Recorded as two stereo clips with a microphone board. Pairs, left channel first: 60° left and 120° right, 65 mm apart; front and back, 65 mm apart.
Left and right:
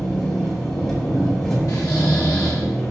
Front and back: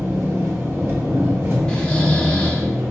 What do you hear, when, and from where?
0.0 s an engine running: 140° left, 1.3 m
1.7 s snoring: 75° left, 0.9 m